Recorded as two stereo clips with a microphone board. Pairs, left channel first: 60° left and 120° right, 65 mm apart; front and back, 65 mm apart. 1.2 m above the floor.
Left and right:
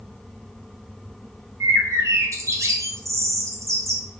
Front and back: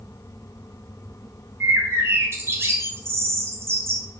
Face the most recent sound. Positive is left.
turn(degrees=-140)